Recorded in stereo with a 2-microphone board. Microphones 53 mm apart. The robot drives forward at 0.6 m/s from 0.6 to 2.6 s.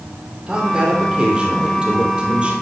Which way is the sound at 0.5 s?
15° right (ahead or behind).